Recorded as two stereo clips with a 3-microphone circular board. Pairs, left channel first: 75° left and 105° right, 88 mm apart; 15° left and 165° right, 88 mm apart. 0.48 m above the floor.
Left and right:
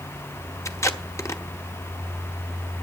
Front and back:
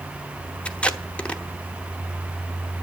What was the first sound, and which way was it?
Tape being pulled, 80° left.